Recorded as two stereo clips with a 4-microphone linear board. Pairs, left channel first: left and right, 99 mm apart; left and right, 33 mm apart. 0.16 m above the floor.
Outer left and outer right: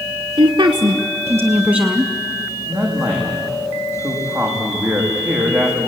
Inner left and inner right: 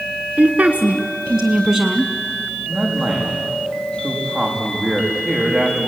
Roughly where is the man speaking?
Centre.